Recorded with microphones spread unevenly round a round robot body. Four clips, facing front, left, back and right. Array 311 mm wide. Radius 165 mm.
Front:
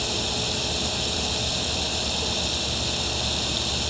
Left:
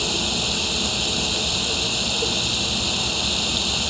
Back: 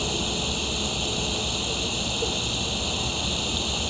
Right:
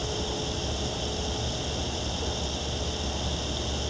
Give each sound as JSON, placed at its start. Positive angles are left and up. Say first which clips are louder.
{"t": 0.0, "sound": "running water", "louder": "left 4 dB, back 1 dB", "azimuth_deg": 100}